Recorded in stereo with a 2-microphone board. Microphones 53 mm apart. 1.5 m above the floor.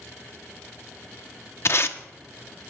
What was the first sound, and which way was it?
Tape being pulled, 55° left (ahead or behind).